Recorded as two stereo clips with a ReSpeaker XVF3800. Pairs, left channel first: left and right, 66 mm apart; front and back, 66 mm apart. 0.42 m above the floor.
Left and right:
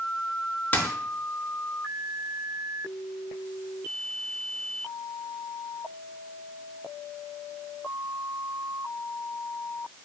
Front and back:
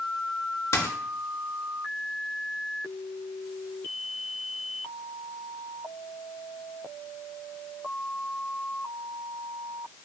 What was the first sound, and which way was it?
A dropped coin, 30° left.